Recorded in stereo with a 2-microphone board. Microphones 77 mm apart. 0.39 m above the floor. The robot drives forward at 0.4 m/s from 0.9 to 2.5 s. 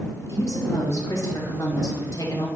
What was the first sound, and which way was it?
A woman speaking, 45° left (ahead or behind).